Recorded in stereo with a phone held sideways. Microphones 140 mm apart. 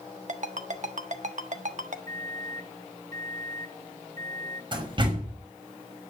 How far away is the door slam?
About 5.5 m.